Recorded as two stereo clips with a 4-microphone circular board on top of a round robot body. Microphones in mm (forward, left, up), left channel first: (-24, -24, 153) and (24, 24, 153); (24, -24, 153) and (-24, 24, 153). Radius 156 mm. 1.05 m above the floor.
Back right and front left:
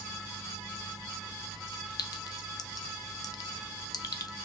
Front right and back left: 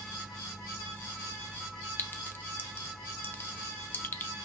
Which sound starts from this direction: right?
A clink, at 2.0 s.